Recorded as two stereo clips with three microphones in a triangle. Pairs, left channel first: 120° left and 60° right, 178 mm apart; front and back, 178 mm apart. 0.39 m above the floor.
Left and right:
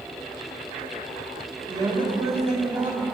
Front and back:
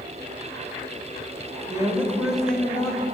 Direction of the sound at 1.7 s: 125° right.